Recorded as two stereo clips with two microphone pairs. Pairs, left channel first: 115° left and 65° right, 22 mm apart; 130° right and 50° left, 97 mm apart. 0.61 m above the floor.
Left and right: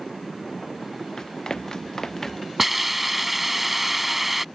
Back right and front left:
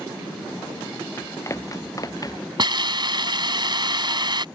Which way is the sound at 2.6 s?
15° left.